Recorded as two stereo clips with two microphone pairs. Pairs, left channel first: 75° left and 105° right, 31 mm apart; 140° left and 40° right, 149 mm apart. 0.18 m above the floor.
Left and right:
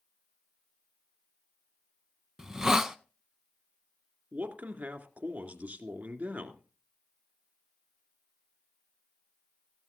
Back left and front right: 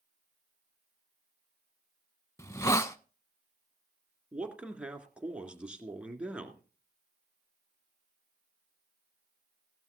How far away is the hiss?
About 0.6 m.